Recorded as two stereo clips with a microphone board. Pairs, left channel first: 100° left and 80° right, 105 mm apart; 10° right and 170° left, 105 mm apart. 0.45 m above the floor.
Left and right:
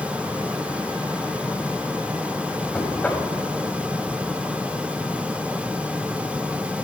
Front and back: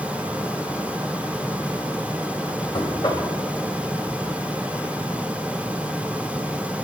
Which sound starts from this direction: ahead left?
Knocking, at 2.7 s.